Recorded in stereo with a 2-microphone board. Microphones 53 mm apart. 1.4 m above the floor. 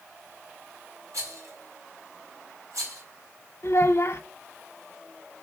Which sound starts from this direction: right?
A rattle, at 1.1 s.